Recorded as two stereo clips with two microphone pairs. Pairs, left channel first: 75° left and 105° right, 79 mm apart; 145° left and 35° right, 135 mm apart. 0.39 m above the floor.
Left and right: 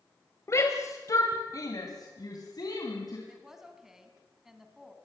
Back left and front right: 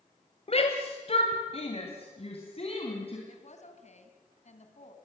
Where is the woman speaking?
170° left, 3 m.